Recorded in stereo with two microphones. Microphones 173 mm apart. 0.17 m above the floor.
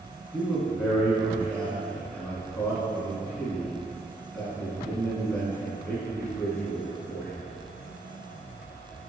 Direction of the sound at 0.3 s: 10° left (ahead or behind).